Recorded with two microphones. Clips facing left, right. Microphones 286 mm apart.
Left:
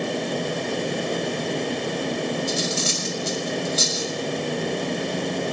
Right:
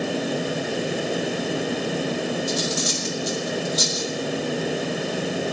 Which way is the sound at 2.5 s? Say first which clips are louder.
Right 1 dB; 35° left (ahead or behind).